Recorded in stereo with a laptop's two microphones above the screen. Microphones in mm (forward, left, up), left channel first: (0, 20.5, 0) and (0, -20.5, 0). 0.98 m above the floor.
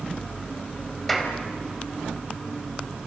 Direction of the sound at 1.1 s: 5° left (ahead or behind).